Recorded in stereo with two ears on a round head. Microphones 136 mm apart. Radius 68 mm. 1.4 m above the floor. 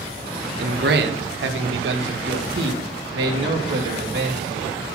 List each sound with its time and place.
0.6 s a man speaking: 70° right (ahead or behind), 1.3 m; by 4.7 s 75° right (ahead or behind), 3.5 m